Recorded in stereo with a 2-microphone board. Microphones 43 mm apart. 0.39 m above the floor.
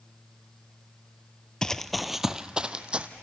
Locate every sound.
1.6 s running footsteps: 15° left (ahead or behind), 0.5 m; by 3.1 s 25° right (ahead or behind), 1.1 m